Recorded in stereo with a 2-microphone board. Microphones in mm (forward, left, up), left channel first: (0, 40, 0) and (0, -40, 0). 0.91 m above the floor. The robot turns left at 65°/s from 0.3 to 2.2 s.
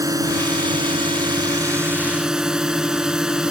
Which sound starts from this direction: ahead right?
A drone, at 0.0 s.